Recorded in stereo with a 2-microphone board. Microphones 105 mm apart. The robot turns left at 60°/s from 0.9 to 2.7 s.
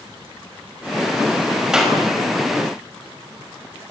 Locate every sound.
1.7 s a clap: 5° right (ahead or behind), 4.5 m; by 2.0 s 10° left (ahead or behind), 4.5 m